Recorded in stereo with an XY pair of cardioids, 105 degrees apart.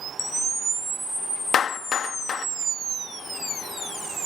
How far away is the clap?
About 1.1 m.